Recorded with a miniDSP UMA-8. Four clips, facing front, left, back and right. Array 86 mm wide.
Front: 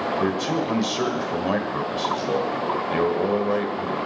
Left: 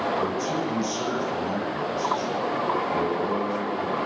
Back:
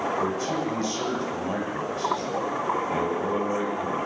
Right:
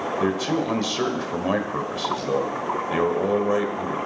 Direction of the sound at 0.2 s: 55° right.